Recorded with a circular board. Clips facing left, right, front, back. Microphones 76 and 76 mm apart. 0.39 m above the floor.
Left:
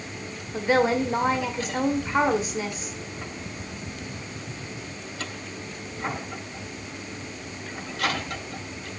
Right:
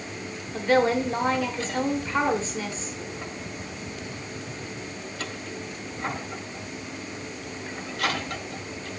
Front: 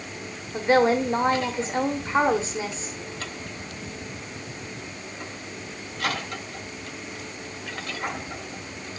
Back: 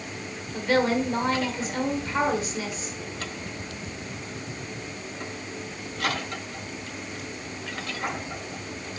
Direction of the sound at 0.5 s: 25° left.